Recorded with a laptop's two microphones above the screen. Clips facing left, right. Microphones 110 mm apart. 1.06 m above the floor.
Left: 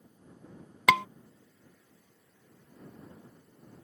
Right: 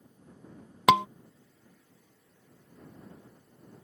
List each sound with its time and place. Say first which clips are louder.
0.9 s a scream: right 4 dB; 20° right (ahead or behind)